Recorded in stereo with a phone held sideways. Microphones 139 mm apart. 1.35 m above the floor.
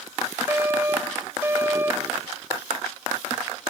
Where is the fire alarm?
15° right (ahead or behind).